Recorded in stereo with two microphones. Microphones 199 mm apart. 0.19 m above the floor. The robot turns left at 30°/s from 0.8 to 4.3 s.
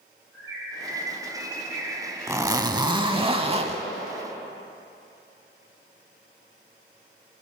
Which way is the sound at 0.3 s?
85° right.